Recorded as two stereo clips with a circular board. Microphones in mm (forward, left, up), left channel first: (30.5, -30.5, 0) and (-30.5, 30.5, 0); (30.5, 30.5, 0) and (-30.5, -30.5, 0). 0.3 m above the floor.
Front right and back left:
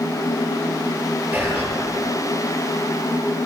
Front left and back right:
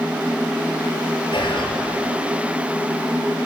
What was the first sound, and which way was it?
Whispering, 70° left.